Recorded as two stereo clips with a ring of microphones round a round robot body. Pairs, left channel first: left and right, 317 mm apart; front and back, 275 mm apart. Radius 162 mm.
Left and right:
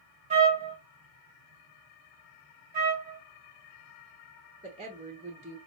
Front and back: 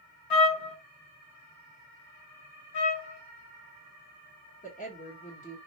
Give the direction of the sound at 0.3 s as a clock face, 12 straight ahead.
1 o'clock.